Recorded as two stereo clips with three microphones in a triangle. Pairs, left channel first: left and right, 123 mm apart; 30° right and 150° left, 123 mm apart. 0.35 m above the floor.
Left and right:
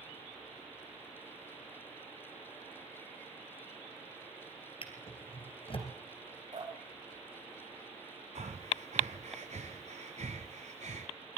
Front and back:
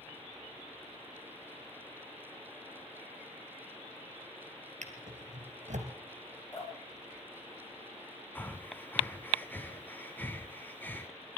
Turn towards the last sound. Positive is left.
turn(degrees=-105)